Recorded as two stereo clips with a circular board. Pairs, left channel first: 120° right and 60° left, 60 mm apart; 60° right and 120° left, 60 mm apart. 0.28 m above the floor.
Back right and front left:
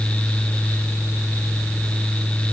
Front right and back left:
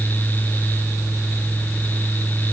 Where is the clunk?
I don't hear a clunk.